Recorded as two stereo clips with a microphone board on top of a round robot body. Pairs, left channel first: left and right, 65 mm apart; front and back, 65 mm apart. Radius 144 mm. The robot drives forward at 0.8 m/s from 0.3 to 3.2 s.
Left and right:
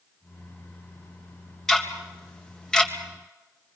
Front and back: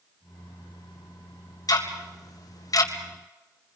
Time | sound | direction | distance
1.7 | ticking | 10° left | 3.5 m